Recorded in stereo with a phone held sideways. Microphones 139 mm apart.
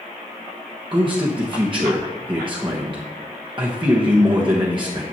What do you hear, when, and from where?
0.9 s a man speaking: 35° right (ahead or behind), 1.1 m